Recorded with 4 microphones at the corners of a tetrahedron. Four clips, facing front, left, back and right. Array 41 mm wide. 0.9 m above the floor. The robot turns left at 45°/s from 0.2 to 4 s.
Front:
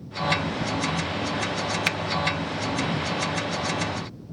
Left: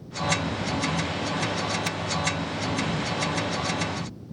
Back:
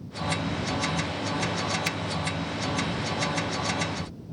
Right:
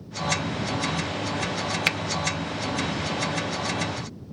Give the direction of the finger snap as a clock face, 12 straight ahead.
2 o'clock.